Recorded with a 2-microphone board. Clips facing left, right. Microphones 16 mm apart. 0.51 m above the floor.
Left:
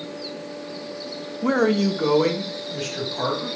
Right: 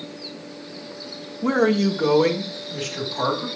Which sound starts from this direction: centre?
A man speaking, at 1.4 s.